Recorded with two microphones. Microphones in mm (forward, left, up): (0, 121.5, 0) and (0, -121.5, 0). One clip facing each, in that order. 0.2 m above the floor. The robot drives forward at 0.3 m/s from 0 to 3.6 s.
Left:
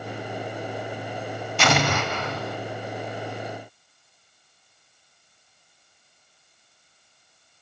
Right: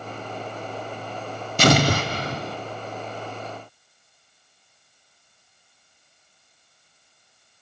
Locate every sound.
1.6 s an explosion: 40° right (ahead or behind), 0.6 m; by 2.6 s 30° right (ahead or behind), 0.7 m